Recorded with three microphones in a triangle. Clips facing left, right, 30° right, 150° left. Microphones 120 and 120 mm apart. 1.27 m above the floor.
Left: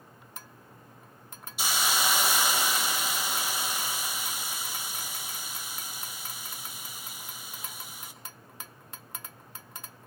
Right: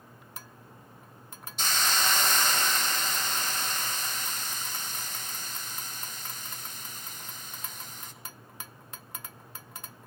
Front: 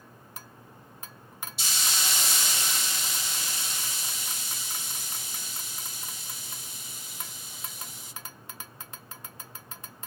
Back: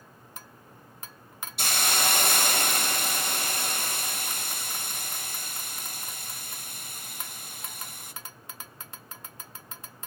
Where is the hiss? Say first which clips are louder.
Left 1 dB, back 7 dB; 170° left, 0.6 m.